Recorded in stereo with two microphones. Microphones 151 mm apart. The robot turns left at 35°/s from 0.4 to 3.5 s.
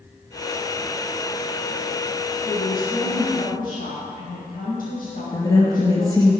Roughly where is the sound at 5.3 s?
Left.